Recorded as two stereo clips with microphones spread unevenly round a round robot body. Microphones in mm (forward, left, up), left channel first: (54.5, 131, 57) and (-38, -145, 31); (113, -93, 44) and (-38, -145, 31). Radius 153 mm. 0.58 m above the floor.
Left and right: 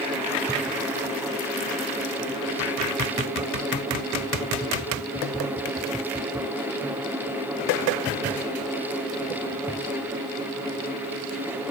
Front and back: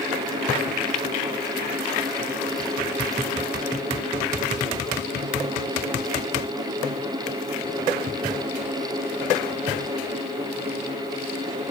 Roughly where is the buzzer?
No buzzer in this recording.